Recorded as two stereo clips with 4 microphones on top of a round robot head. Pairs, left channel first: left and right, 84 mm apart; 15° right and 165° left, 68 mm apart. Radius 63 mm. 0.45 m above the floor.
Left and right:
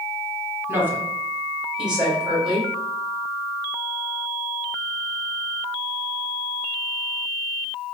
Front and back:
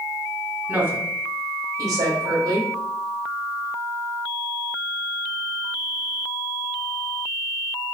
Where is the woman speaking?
140° right, 1.2 m; by 2.7 s 175° right, 2.5 m.